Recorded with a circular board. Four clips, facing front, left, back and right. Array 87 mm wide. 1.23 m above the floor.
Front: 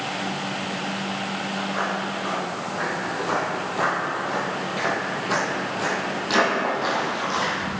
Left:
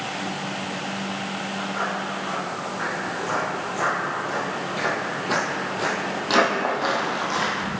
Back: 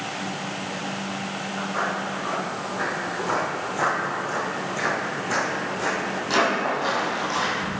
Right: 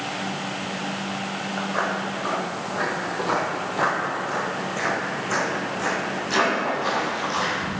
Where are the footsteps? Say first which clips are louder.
Right 3 dB, back 1 dB; 85° right, 2 m; by 7.8 s 75° left, 2.5 m.